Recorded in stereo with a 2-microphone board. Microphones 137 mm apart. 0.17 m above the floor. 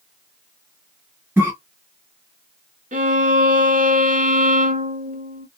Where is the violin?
65° right (ahead or behind), 0.6 m.